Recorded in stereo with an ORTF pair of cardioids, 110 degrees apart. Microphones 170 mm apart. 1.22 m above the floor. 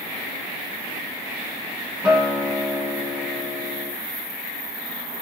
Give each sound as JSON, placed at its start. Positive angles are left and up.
{"t": 2.0, "sound": "a guitar", "azimuth_deg": -5, "distance_m": 0.9}